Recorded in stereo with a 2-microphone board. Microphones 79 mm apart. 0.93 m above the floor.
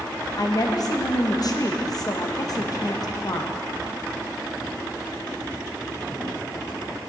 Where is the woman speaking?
50° left (ahead or behind), 0.9 m.